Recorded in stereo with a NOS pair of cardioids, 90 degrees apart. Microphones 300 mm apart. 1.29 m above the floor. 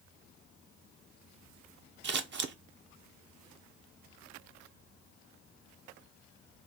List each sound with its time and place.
2.0 s scissors: 40° right, 0.7 m